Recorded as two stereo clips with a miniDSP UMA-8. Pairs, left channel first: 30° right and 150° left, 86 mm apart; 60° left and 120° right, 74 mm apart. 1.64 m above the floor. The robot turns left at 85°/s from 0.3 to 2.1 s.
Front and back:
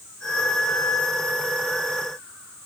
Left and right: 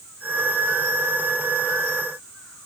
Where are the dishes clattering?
I don't hear dishes clattering.